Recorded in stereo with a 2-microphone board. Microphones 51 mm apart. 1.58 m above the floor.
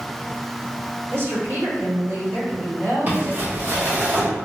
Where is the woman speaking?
50° right (ahead or behind), 1.7 m.